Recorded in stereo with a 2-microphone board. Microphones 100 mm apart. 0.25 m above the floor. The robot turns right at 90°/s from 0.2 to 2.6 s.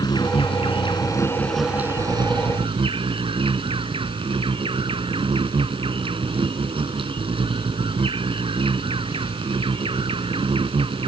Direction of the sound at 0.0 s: 55° left.